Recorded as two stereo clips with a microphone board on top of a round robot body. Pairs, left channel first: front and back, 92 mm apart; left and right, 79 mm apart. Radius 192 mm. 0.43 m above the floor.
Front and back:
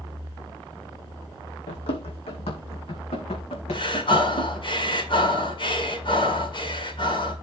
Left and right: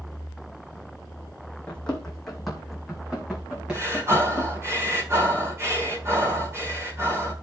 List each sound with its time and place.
1.7 s running footsteps: 10° left, 2.0 m; by 4.7 s 15° right, 4 m
3.7 s breathing: 30° right, 4.5 m